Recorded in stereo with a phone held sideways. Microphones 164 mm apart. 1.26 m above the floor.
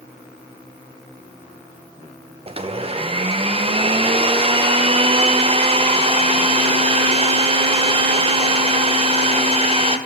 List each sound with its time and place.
2.5 s a blender: 35° right (ahead or behind), 0.5 m